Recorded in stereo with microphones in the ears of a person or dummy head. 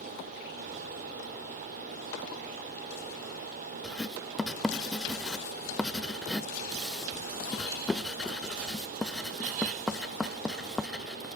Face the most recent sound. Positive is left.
turn(degrees=5)  # may be behind; listen again after turning